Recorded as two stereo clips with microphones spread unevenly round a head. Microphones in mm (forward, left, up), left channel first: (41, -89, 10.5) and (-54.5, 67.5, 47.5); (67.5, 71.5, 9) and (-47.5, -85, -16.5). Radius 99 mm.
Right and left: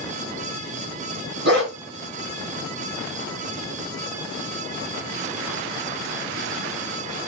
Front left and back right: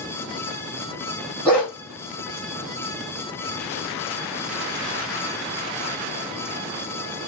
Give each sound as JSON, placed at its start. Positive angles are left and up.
{"t": 1.4, "sound": "a dog barking", "azimuth_deg": 135, "distance_m": 2.5}